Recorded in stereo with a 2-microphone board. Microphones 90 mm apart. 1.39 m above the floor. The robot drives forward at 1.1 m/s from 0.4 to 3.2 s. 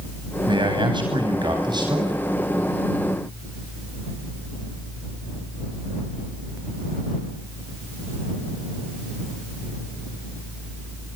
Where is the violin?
I don't hear a violin.